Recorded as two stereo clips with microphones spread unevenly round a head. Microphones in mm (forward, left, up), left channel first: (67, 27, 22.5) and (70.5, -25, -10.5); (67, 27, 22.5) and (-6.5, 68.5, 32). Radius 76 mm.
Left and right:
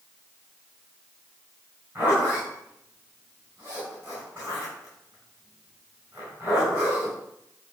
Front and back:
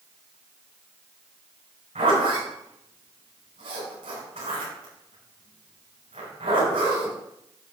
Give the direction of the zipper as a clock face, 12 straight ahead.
6 o'clock.